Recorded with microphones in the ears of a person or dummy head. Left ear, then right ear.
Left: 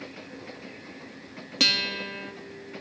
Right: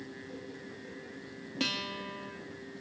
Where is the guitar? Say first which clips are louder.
Left 11 dB; 40° left (ahead or behind), 2.5 m.